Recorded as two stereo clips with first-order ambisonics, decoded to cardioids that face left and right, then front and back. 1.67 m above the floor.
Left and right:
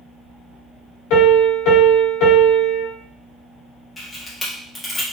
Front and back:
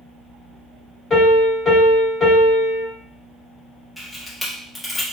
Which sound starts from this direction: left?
A piano, at 1.1 s.